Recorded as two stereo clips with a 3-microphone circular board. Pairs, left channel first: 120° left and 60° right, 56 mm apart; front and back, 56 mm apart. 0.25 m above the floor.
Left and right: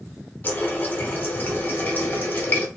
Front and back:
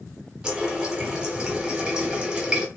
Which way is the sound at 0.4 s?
115° left.